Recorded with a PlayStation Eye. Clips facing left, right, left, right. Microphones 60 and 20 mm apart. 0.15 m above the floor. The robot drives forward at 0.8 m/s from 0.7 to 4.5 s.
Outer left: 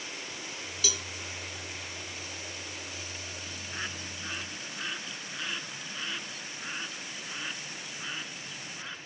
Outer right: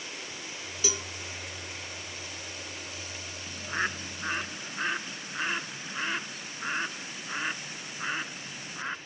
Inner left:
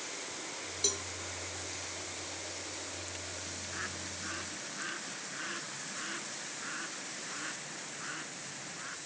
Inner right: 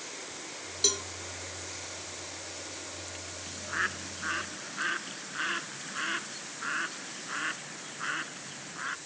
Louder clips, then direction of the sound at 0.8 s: Outer right 3 dB, inner right 6 dB; 30° right (ahead or behind).